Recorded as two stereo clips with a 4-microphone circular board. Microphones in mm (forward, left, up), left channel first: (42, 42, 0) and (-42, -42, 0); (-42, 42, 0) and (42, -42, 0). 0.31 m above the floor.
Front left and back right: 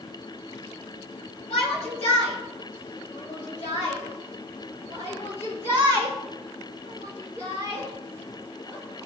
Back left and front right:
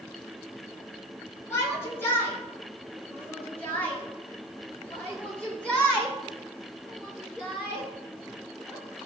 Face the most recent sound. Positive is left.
turn(degrees=50)